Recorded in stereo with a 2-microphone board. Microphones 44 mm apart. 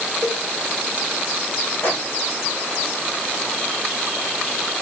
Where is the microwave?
70° left (ahead or behind), 2 m.